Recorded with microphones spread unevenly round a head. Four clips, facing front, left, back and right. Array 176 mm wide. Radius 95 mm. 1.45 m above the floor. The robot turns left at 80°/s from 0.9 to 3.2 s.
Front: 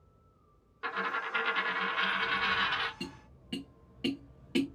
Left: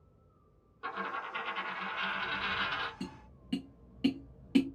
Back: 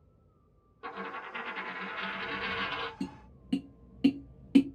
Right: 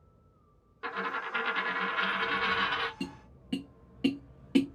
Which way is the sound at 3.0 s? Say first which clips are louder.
Right 4 dB, back 5 dB; 130° right.